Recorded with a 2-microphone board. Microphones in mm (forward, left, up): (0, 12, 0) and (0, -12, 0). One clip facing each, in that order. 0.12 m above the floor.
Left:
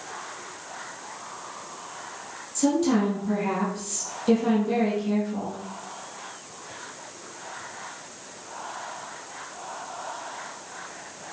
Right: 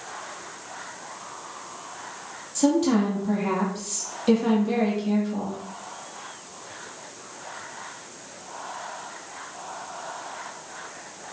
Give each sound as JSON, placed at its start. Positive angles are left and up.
{"t": 2.5, "sound": "a woman speaking", "side_deg": -20, "distance_m": 3.5}